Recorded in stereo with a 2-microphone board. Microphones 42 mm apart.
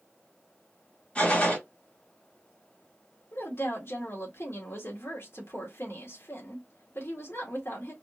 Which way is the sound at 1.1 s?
25° left (ahead or behind).